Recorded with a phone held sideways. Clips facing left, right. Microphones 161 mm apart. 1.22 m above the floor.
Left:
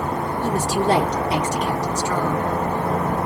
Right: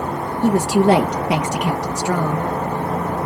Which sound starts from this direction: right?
A woman speaking, at 0.4 s.